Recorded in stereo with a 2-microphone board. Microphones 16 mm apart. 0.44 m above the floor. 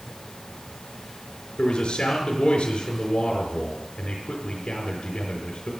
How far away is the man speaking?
About 4.5 m.